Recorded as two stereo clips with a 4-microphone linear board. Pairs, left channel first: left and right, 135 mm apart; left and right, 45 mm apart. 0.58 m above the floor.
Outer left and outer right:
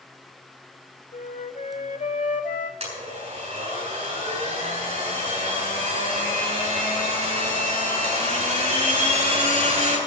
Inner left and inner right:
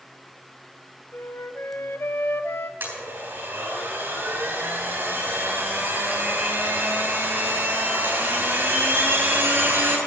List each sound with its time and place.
1.1 s a flute: 70° left (ahead or behind), 0.7 m
2.8 s a blender: 55° right (ahead or behind), 7 m